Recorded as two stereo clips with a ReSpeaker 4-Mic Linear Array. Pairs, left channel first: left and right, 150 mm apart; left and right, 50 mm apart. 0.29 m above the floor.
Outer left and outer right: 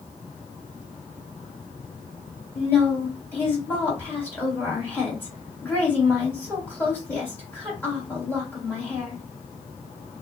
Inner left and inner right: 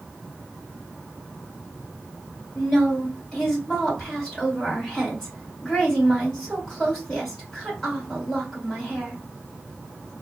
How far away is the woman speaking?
About 2 m.